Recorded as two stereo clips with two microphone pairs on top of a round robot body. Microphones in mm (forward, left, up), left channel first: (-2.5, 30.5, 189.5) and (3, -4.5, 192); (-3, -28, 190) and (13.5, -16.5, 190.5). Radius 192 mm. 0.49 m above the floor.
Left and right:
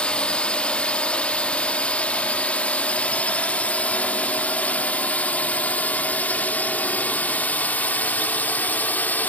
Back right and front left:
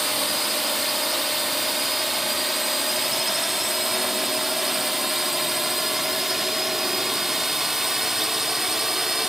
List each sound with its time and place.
0.0 s a drone: 125° left; by 9.3 s 100° left